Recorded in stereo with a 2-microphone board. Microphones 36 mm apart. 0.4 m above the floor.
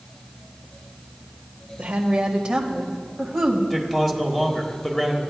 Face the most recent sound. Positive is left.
turn(degrees=10)  # may be behind; listen again after turning